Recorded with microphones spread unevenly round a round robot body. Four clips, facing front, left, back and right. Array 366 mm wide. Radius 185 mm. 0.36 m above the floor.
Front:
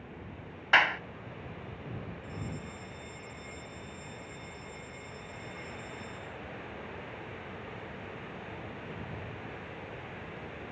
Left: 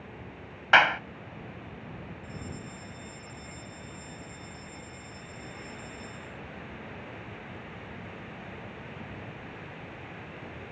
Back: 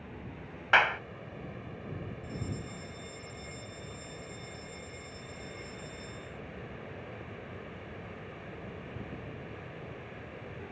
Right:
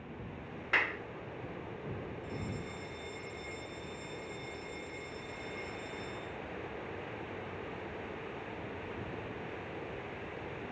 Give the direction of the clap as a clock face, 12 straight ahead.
9 o'clock.